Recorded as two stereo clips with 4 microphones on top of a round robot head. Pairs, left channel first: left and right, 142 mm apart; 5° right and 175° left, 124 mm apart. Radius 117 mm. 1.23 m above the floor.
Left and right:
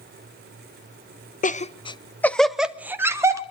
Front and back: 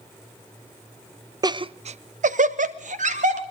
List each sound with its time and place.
1.4 s laughter: 115° left, 0.6 m; by 3.4 s 160° right, 1.3 m